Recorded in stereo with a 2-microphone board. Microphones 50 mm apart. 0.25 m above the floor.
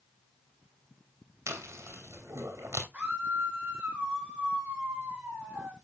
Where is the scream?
25° right (ahead or behind), 7.5 m.